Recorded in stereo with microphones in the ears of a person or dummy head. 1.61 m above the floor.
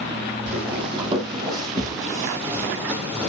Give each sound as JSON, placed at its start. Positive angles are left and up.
{"t": 0.5, "sound": "footsteps", "side_deg": -35, "distance_m": 4.0}